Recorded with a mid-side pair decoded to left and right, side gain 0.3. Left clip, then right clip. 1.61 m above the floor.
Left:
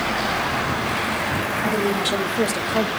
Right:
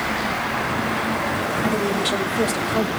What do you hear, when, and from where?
1.6 s a woman speaking: 5° left, 2.5 m; by 2.9 s 20° left, 1.8 m